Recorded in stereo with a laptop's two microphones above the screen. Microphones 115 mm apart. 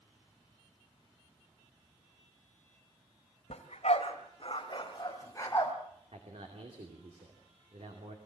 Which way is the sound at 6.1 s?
65° right (ahead or behind).